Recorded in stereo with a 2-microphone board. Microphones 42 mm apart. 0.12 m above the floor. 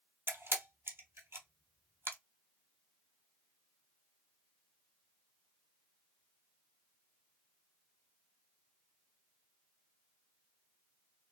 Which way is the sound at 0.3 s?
70° right (ahead or behind).